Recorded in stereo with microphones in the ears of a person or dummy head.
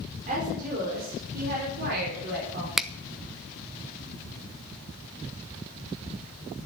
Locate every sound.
0.3 s a woman speaking: 40° right (ahead or behind), 5 m; by 2.7 s 65° right (ahead or behind), 5 m
2.8 s a finger snap: 5° right (ahead or behind), 0.7 m